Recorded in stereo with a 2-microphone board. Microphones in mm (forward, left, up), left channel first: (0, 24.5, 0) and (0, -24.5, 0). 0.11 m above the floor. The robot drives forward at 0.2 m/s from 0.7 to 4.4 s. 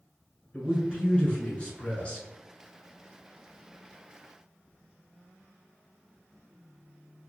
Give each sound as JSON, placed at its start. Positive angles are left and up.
{"t": 0.5, "sound": "a man speaking", "side_deg": 25, "distance_m": 1.2}